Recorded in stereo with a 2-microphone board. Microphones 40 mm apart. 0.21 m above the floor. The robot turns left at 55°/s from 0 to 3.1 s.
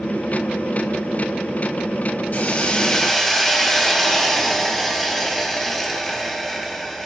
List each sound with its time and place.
2.3 s a hiss: 45° left, 2.5 m; by 7.1 s straight ahead, 2.5 m